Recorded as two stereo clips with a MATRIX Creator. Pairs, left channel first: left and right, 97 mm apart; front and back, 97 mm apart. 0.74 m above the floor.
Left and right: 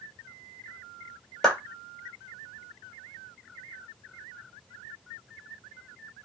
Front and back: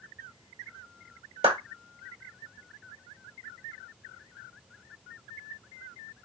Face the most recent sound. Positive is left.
turn(degrees=175)